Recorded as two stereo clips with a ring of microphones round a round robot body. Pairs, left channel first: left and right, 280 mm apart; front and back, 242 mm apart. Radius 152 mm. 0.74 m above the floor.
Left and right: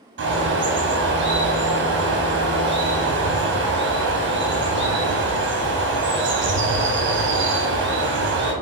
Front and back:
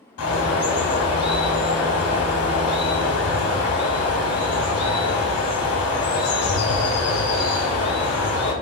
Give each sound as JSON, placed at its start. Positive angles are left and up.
{"t": 0.2, "sound": "a bird", "azimuth_deg": -40, "distance_m": 0.7}